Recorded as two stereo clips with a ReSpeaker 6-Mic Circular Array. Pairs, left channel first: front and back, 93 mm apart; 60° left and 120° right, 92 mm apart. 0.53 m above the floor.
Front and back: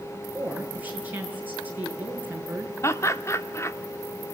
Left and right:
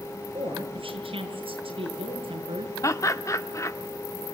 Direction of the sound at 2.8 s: 35° left.